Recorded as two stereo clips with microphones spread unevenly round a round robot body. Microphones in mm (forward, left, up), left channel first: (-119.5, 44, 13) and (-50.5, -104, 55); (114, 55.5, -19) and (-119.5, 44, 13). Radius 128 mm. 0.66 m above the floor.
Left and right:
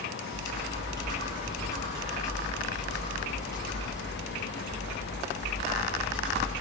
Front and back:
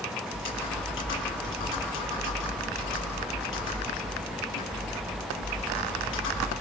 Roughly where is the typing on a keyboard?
Ahead left.